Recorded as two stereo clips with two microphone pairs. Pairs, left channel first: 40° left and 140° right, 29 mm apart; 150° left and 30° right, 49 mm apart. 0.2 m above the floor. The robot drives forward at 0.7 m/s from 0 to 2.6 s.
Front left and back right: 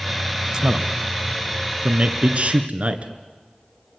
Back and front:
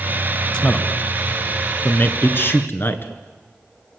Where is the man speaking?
150° right, 1.2 m; by 3.1 s 170° right, 2.5 m.